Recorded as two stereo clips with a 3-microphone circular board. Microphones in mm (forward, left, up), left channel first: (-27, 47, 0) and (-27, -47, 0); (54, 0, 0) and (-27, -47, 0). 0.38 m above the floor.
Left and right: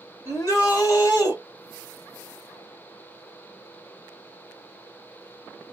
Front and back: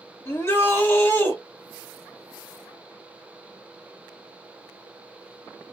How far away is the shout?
About 1.6 m.